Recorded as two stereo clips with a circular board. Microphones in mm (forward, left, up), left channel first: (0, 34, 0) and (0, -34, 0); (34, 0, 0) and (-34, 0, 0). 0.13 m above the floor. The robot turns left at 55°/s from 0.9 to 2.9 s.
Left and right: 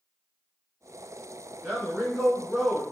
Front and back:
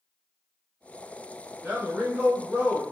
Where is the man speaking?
130° right, 1.2 m; by 2.8 s 165° left, 1.2 m.